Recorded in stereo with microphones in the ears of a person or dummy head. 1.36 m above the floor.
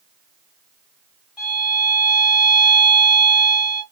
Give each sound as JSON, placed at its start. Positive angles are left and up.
{"t": 1.4, "sound": "a violin", "side_deg": -5, "distance_m": 2.5}